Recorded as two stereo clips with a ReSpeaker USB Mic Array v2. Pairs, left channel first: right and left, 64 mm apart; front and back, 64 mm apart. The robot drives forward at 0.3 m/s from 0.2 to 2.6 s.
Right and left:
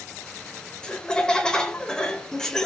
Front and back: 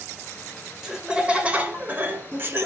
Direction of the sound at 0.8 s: 125° right.